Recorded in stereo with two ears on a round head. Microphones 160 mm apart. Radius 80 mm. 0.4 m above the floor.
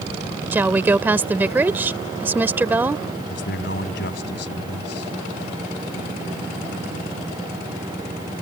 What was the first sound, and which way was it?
A woman speaking, 10° right (ahead or behind).